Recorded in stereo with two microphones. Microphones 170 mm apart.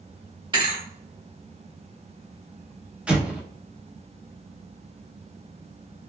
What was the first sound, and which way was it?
A thud, 30° right (ahead or behind).